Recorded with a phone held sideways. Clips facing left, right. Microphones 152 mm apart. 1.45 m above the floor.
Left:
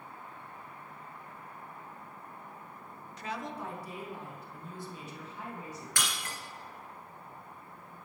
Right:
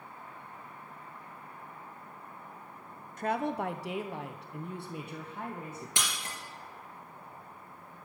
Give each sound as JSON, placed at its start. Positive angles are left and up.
{"t": 3.2, "sound": "a woman speaking", "side_deg": -50, "distance_m": 0.7}
{"t": 6.0, "sound": "breaking glass", "side_deg": -25, "distance_m": 2.5}